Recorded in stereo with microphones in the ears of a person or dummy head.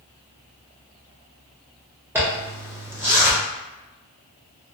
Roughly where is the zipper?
Centre.